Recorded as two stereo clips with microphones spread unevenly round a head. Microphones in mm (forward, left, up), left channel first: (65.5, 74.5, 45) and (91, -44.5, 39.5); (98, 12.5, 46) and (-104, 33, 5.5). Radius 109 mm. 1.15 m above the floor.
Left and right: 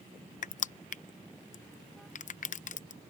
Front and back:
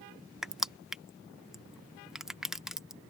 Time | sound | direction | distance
0.4 | crushing | 90° left | ?